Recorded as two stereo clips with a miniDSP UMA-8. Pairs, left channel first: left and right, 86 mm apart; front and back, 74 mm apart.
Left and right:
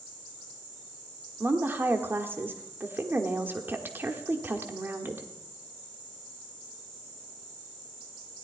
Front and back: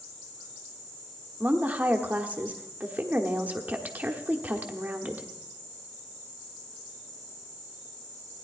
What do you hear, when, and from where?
1.4 s a woman speaking: 130° right, 1.0 m